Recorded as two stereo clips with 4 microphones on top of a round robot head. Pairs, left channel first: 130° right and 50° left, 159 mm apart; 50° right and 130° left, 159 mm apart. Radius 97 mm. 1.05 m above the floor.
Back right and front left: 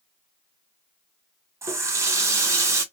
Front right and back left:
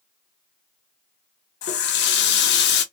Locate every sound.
1.6 s a running tap: 25° right, 0.5 m